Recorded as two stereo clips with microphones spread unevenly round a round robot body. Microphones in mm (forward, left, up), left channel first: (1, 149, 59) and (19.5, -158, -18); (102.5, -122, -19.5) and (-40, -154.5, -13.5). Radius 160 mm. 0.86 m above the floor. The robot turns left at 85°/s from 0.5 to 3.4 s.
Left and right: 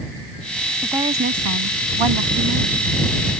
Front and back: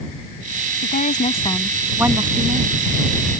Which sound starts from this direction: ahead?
A woman speaking, at 0.8 s.